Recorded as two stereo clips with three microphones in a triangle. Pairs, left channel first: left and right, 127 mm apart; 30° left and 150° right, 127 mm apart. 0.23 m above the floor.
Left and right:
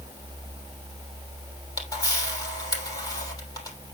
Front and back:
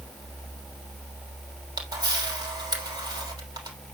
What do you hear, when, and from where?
1.8 s a camera shutter: 150° left, 3 m